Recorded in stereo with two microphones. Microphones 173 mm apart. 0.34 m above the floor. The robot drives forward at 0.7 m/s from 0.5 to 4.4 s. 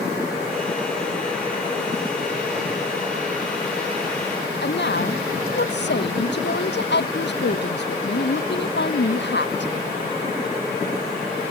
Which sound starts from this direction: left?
A woman speaking, at 4.6 s.